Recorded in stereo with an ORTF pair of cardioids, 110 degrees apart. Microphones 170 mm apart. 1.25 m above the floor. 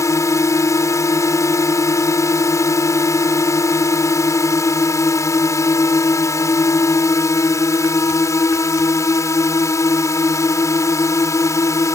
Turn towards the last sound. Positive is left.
turn(degrees=20)